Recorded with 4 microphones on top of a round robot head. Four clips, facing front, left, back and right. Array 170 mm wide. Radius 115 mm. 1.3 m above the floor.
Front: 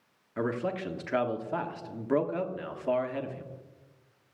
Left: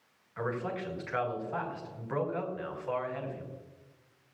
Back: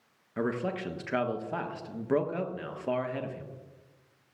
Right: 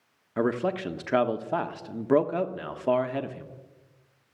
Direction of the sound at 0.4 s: 95° right.